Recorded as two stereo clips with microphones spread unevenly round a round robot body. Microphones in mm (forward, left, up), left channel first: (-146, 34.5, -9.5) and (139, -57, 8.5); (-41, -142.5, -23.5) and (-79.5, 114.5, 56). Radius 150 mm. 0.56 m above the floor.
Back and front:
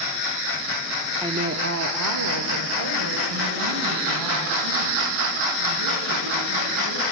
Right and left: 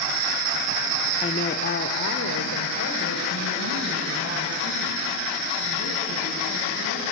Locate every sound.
1.2 s a woman speaking: 95° right, 0.8 m; by 7.0 s 30° right, 7 m